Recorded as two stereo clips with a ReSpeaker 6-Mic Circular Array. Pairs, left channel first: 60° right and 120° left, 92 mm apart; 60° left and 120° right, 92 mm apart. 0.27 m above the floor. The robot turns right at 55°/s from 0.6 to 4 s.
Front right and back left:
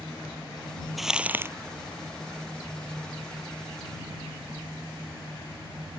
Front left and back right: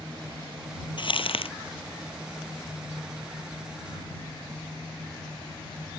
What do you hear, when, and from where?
1.0 s crumpling: 30° left; by 1.5 s 60° left